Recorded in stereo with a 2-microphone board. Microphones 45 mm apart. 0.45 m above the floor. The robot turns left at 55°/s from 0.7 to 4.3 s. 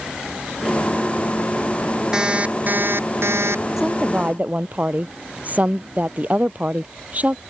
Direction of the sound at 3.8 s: 5° right (ahead or behind).